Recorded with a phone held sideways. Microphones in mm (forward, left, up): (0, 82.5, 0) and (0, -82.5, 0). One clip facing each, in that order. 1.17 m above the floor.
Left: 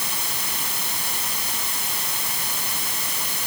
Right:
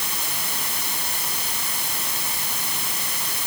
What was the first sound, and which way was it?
Only background noise.